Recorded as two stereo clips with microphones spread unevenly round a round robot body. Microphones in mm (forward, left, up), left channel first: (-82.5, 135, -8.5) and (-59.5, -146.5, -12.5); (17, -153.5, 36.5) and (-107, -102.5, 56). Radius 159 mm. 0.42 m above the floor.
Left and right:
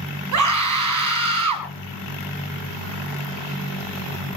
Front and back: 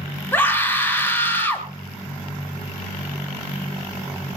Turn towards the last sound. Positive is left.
turn(degrees=-95)